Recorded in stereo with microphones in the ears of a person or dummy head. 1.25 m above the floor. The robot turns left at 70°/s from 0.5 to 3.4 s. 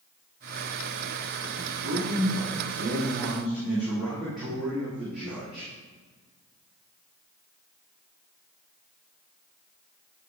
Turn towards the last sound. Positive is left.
turn(degrees=-175)